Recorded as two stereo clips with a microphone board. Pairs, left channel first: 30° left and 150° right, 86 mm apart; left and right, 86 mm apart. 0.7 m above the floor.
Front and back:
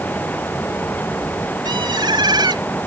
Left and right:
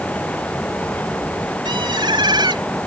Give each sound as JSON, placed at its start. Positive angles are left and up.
{"t": 1.6, "sound": "a bird", "azimuth_deg": -115}